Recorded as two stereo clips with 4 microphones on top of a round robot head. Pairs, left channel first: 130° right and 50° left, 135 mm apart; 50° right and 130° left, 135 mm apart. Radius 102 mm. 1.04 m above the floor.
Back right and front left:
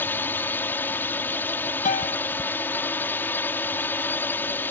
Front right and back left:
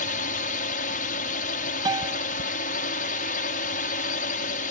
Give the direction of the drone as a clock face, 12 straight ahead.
2 o'clock.